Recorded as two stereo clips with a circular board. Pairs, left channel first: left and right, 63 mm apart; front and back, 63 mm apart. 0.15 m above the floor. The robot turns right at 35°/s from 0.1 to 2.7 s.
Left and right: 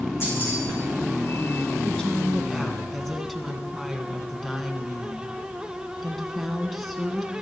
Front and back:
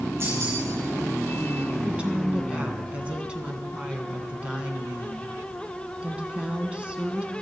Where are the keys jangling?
135° left, 7 m; by 0.6 s 145° left, 7 m.